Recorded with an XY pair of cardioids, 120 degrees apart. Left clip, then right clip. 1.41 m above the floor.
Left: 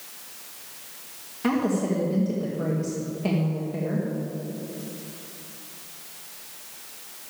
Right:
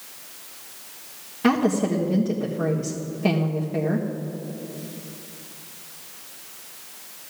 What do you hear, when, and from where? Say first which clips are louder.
1.4 s a woman speaking: right 4 dB; 25° right, 1.5 m